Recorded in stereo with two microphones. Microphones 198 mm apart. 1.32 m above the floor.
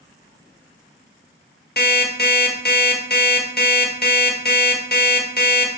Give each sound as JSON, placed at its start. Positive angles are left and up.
{"t": 1.8, "sound": "an alarm clock", "side_deg": 50, "distance_m": 1.2}